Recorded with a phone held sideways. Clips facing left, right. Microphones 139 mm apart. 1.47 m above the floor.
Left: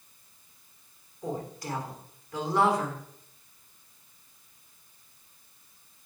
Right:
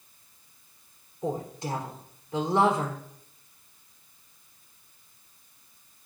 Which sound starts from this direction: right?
A woman speaking, at 1.2 s.